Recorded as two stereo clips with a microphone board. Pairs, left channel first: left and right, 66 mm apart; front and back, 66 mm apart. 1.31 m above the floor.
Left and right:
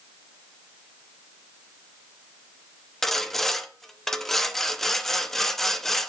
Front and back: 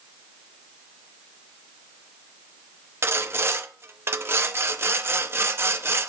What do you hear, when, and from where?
3.0 s sawing: 170° left, 0.7 m